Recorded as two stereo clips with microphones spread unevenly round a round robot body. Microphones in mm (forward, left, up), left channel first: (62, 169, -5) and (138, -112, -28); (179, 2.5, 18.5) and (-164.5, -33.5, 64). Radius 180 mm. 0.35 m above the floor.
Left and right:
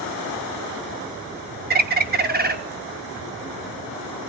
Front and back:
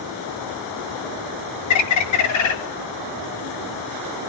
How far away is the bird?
About 1.1 m.